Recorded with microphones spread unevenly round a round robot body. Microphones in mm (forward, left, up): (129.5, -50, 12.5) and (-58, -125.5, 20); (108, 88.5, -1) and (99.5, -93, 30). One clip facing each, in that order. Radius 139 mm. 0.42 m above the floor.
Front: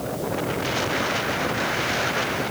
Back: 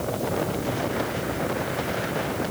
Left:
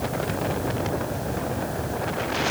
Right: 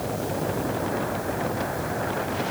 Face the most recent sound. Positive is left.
No sound to turn to.